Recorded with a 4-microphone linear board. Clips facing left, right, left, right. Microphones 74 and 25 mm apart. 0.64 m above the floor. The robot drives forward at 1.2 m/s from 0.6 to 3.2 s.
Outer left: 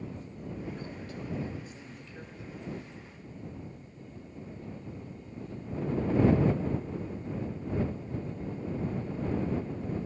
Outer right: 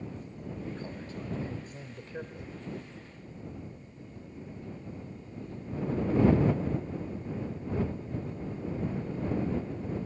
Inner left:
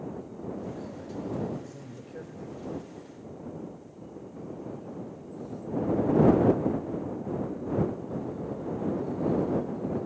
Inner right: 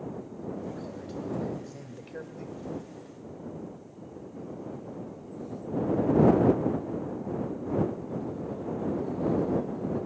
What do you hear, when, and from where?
0.6 s a man speaking: 30° right (ahead or behind), 3 m; by 2.6 s 70° right (ahead or behind), 1.8 m